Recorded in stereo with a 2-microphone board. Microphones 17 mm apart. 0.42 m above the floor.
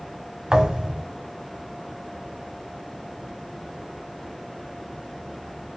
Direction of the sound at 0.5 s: 75° right (ahead or behind).